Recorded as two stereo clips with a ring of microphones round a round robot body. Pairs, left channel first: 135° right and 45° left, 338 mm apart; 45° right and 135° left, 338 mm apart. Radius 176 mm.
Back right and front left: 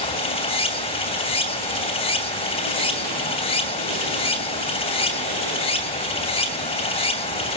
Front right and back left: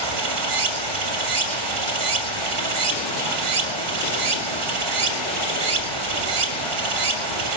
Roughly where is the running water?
Behind left.